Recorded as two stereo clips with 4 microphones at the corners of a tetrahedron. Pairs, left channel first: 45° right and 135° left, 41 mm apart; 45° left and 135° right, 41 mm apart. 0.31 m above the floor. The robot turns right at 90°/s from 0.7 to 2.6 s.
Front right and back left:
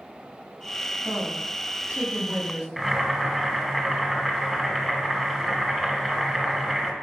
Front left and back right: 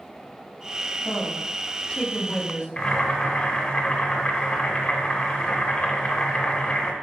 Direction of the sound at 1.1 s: 30° left.